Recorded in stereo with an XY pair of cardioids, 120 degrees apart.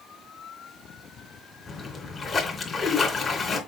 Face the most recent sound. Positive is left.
turn(degrees=30)